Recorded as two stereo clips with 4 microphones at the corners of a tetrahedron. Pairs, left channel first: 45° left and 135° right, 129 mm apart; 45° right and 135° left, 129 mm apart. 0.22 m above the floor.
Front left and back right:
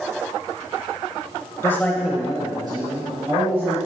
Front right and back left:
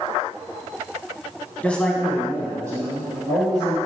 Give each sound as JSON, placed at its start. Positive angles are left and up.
{"t": 1.6, "sound": "a man speaking", "azimuth_deg": 10, "distance_m": 1.1}